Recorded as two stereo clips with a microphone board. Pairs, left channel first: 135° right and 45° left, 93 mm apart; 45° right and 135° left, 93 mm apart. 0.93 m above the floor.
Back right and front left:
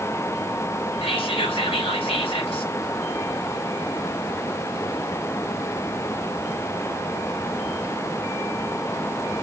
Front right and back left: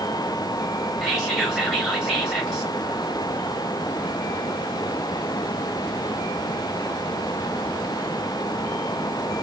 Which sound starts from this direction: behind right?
Whispering, at 1.0 s.